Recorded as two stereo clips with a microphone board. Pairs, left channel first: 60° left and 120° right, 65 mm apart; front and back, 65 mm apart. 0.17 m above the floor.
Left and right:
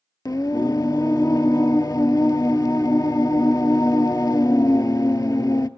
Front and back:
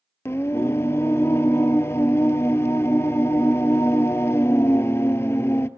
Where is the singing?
45° left, 0.5 m.